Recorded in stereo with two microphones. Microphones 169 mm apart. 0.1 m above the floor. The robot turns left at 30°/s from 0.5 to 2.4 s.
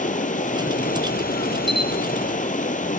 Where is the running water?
120° left, 0.9 m; by 3.0 s 60° left, 0.9 m.